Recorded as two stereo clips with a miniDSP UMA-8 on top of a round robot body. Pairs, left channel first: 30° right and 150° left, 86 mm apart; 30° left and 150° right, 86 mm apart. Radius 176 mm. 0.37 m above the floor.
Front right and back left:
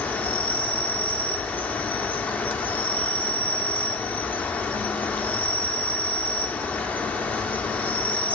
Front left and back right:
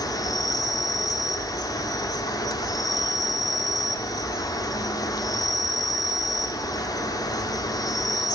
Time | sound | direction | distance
0.0 | an insect | 35° left | 1.0 m